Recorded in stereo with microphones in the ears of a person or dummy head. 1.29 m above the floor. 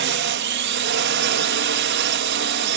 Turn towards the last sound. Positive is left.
turn(degrees=-55)  # may be behind; listen again after turning